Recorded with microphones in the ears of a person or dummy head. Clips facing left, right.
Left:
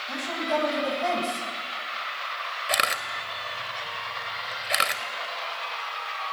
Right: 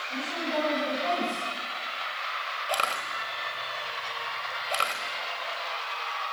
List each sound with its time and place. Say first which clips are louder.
0.1 s a woman speaking: left 4 dB; 80° left, 8.5 m
2.7 s a camera shutter: left 1 dB; 25° left (ahead or behind), 1.5 m